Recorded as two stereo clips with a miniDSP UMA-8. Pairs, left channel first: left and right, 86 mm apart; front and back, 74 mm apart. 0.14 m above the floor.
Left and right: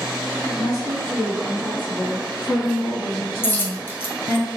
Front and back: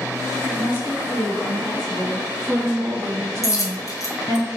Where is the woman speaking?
50° left, 1.7 m; by 4.4 s 145° right, 1.8 m.